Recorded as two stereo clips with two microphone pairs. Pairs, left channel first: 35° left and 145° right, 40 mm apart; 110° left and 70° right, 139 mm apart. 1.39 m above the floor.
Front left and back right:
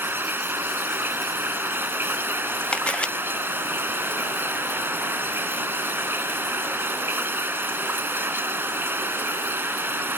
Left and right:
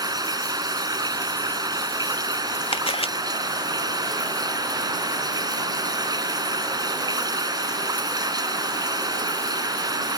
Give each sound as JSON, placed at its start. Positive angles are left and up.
{"t": 0.0, "sound": "running water", "azimuth_deg": -130}
{"t": 2.7, "sound": "a camera shutter", "azimuth_deg": 90}